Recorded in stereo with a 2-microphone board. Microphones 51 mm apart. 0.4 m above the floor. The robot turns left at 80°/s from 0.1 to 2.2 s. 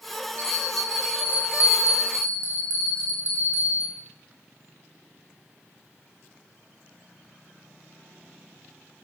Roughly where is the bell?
Ahead left.